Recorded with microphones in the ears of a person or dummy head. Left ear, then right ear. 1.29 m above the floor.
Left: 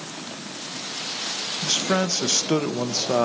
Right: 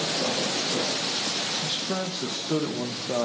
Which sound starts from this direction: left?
A man speaking, at 1.6 s.